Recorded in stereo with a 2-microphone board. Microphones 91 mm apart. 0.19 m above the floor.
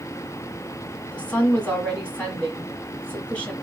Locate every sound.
1.1 s a woman speaking: 15° left (ahead or behind), 1.6 m